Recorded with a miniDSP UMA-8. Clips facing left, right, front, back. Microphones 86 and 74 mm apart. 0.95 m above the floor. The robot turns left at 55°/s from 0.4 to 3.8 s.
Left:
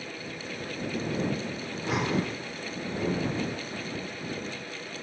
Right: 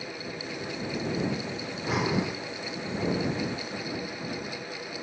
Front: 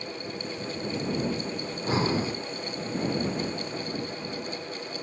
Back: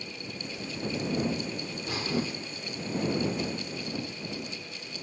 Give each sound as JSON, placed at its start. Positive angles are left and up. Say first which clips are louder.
{"t": 1.6, "sound": "breathing", "louder": "right 1 dB, front 7 dB", "azimuth_deg": 10}